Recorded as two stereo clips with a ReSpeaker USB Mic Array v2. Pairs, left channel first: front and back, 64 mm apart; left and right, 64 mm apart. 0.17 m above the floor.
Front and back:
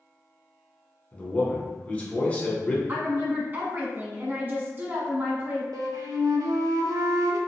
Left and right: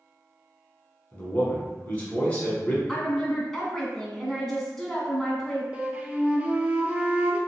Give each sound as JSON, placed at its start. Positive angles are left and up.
{"t": 1.1, "sound": "a man speaking", "azimuth_deg": 45, "distance_m": 1.3}
{"t": 2.9, "sound": "a woman speaking", "azimuth_deg": 170, "distance_m": 1.2}
{"t": 5.7, "sound": "a flute", "azimuth_deg": -160, "distance_m": 0.6}